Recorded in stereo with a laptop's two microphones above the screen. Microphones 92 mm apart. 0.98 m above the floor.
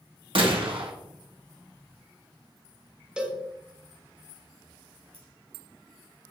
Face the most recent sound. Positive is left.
turn(degrees=85)